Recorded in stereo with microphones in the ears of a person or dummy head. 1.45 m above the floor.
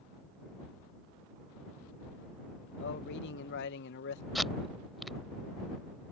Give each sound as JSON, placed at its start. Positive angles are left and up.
{"t": 2.8, "sound": "a man speaking", "side_deg": 70}
{"t": 4.3, "sound": "tape being pulled", "side_deg": -5}